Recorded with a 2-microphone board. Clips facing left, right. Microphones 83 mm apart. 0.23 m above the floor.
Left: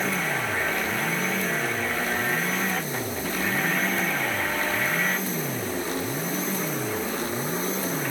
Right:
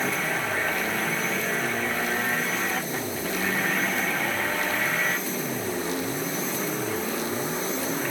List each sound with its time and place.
Only background noise.